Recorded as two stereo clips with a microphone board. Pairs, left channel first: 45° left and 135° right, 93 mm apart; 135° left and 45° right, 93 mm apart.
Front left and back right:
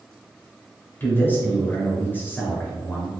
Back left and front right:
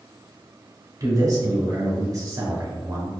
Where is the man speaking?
15° right, 1.2 m.